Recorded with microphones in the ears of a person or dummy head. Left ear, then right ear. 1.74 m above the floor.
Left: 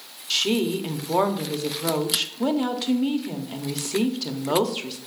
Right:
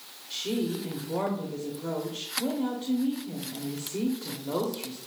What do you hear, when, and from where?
0.3 s a woman speaking: 70° left (ahead or behind), 0.8 m